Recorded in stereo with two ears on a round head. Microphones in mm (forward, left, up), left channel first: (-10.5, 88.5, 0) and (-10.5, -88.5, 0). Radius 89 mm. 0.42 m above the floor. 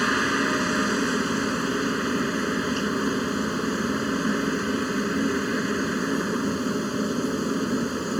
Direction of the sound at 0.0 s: Centre (ahead or behind).